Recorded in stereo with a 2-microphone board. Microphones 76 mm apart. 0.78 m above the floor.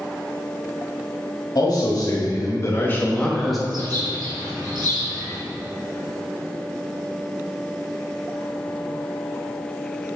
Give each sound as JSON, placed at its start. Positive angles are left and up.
{"t": 1.6, "sound": "a man speaking", "side_deg": 60, "distance_m": 1.5}
{"t": 3.7, "sound": "a bird", "side_deg": -65, "distance_m": 2.0}